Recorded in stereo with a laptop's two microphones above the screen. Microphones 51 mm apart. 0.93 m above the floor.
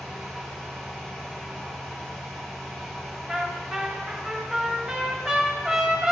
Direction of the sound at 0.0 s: 15° left (ahead or behind).